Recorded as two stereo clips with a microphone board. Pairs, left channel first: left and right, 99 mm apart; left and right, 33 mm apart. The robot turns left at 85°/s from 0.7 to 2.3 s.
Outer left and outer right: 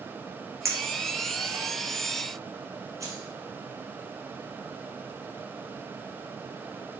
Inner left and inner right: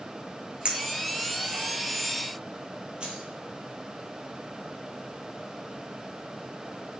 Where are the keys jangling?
30° right (ahead or behind), 3 m.